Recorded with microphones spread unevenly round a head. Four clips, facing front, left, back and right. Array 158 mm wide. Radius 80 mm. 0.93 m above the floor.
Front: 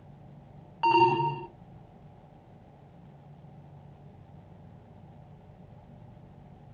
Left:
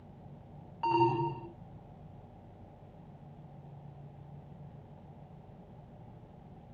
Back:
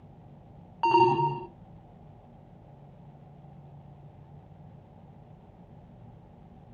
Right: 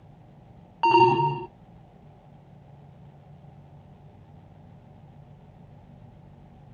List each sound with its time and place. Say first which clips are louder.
0.8 s an alarm: right 10 dB, back 1 dB; 95° right, 0.6 m